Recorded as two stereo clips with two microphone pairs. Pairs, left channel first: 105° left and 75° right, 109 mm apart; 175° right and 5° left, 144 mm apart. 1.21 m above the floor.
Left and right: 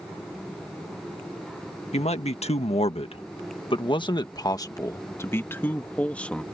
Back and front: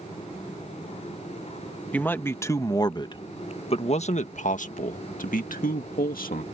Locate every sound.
1.9 s a man speaking: 110° left; by 6.4 s 175° right